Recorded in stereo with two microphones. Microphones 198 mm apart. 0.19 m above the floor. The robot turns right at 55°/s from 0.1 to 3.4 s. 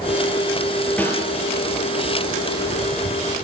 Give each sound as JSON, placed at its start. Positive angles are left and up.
{"t": 1.0, "sound": "a snare drum", "side_deg": 5, "distance_m": 5.5}